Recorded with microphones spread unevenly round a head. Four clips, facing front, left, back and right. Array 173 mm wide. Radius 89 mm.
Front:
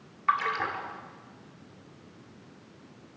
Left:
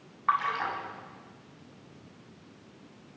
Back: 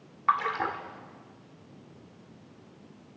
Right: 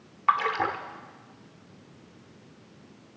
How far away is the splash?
About 1.8 m.